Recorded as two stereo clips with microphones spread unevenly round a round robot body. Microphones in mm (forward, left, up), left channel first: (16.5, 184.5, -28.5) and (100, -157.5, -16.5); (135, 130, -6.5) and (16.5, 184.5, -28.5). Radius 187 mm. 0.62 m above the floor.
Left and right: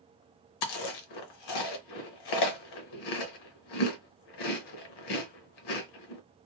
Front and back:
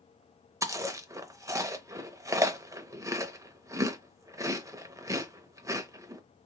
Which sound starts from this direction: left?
Chewing, at 0.6 s.